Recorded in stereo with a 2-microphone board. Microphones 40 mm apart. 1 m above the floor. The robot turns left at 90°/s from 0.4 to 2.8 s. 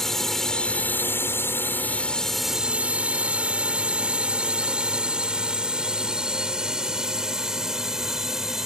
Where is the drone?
10° left (ahead or behind); by 8.7 s 10° right (ahead or behind).